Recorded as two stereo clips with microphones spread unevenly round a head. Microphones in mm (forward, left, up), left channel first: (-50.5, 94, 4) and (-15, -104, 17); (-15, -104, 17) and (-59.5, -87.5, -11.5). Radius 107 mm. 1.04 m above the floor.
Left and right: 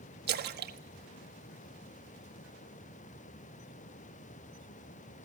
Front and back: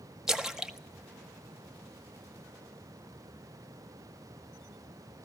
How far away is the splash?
About 1.4 m.